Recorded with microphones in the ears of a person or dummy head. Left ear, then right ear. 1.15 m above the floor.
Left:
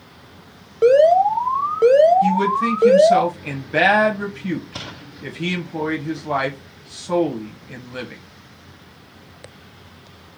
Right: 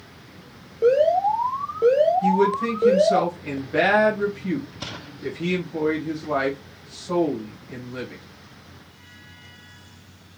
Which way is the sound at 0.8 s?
40° left (ahead or behind).